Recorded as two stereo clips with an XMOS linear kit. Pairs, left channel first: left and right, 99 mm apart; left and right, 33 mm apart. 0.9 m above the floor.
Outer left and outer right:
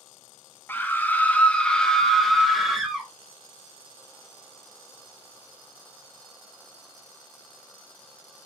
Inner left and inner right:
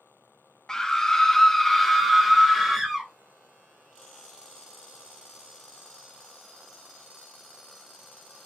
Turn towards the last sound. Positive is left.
turn(degrees=0)  # may be behind; listen again after turning